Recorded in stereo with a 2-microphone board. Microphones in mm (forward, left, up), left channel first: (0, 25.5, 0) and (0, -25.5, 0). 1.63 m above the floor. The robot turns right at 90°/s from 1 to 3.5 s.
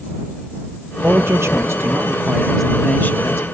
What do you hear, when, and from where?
1.0 s a man speaking: 140° right; by 3.4 s 75° left